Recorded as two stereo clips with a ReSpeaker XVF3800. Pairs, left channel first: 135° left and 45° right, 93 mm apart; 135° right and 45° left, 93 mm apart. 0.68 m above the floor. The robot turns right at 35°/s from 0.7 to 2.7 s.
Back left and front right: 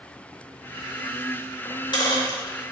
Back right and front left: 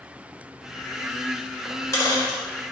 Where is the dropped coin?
160° left, 0.7 m; by 2.4 s 170° right, 0.7 m.